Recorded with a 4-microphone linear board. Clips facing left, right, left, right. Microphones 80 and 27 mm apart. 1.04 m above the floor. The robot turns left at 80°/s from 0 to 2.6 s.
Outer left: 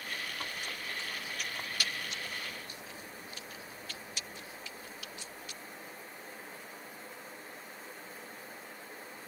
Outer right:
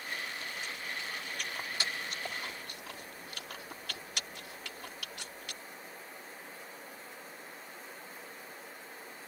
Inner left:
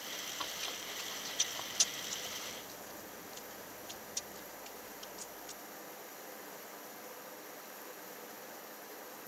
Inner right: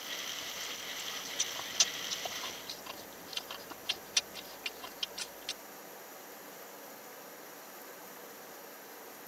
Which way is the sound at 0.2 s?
75° left (ahead or behind).